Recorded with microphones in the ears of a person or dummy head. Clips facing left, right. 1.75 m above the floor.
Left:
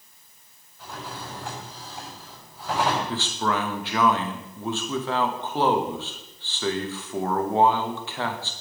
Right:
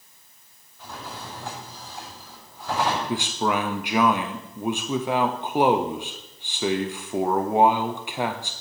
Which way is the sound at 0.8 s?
Centre (ahead or behind).